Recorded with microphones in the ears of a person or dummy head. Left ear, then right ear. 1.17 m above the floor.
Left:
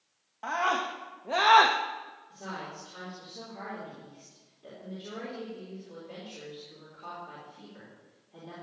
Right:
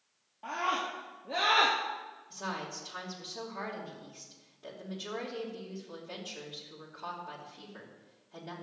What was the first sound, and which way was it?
A scream, 60° left (ahead or behind).